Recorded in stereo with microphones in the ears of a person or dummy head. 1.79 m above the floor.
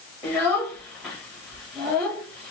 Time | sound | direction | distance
0.2 | a child speaking | centre (ahead or behind) | 1.1 m